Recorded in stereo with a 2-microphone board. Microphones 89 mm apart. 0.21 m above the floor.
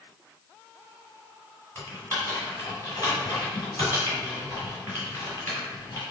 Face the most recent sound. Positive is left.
turn(degrees=30)  # may be behind; listen again after turning